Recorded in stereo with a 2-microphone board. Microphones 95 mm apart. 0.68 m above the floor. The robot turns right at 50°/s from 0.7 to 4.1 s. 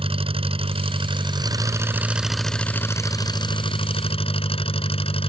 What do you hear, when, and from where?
0.0 s an engine running: 85° right; by 5.3 s 85° left